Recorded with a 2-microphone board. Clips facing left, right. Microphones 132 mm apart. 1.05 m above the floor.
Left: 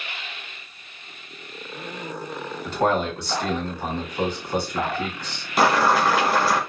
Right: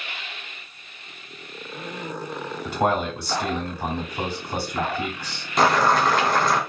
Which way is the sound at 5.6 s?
5° left (ahead or behind).